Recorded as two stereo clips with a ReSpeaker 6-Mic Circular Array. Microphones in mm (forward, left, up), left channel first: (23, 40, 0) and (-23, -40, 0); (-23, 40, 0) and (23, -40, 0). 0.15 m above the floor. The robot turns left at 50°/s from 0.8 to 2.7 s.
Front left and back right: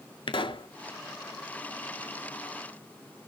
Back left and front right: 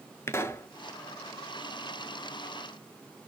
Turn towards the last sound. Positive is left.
turn(degrees=-35)